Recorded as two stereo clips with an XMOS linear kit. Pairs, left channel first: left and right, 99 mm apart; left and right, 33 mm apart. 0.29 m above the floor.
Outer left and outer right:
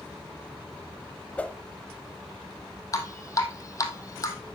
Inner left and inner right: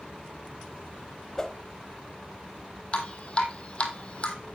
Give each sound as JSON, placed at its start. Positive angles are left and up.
{"t": 1.4, "sound": "a whoosh", "side_deg": 15, "distance_m": 0.8}
{"t": 2.9, "sound": "dripping", "side_deg": 35, "distance_m": 1.5}